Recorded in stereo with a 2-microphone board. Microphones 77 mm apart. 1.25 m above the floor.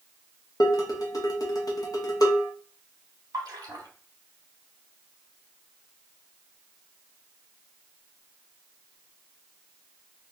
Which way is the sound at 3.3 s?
60° right (ahead or behind).